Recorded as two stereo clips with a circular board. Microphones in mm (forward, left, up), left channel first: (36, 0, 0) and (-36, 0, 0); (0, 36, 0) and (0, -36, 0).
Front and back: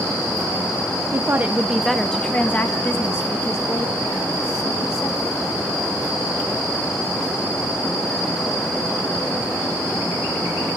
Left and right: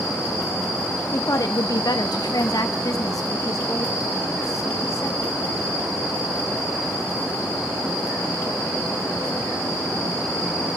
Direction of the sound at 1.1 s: 135° left.